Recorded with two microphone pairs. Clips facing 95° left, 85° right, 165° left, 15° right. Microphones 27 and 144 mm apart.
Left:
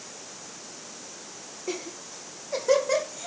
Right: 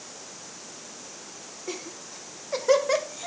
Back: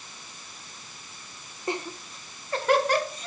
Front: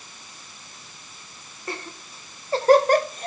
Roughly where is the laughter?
Behind.